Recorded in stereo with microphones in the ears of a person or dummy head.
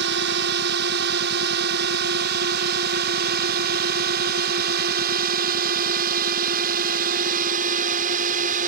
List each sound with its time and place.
0.0 s a drone: 65° right (ahead or behind); by 8.7 s 45° right (ahead or behind)